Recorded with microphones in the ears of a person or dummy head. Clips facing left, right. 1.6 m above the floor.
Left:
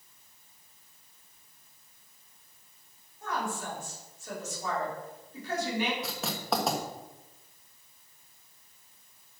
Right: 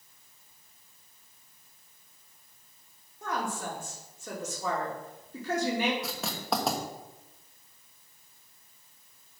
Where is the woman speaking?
65° right (ahead or behind), 3 m.